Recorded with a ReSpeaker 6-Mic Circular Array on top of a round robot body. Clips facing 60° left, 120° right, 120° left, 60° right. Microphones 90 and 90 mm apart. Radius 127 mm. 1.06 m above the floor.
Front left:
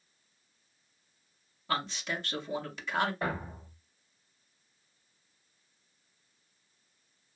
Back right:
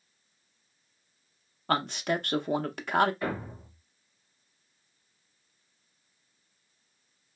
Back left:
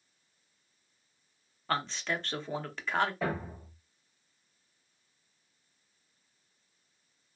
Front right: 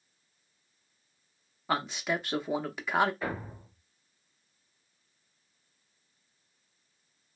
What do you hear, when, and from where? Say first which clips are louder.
1.7 s a man speaking: back right 6 dB, front right 2 dB; 140° right, 0.8 m
3.2 s a thud: back right 1 dB, back left 2 dB; 110° left, 1.7 m